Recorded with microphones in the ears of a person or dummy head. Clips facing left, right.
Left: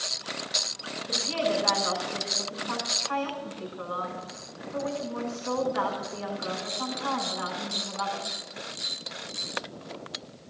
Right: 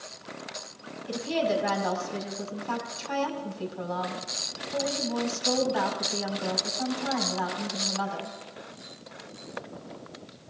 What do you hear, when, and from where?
1.1 s a woman speaking: 65° right (ahead or behind), 5 m